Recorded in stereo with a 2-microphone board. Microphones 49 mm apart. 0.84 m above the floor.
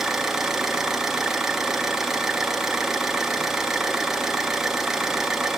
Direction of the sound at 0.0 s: 10° right (ahead or behind).